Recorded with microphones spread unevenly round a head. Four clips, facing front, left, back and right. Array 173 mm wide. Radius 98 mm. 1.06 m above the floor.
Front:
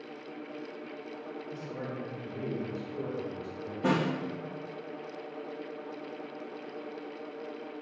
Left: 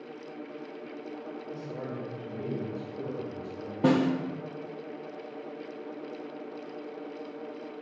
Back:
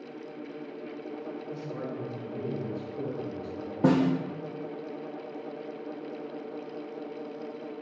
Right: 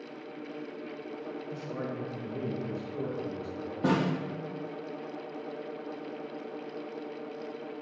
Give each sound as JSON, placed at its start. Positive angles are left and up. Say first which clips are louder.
{"t": 1.5, "sound": "a man speaking", "louder": "even, back 2 dB", "azimuth_deg": -80, "distance_m": 1.8}
{"t": 3.8, "sound": "a snare drum", "louder": "left 4 dB, back 5 dB", "azimuth_deg": 160, "distance_m": 0.8}